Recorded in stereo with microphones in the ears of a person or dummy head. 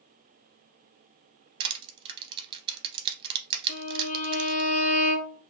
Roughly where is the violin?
Left.